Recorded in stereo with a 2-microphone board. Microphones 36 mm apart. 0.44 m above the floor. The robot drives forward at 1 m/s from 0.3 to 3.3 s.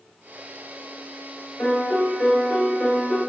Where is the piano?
35° left (ahead or behind), 1.2 m; by 3.2 s 15° left (ahead or behind), 2.5 m.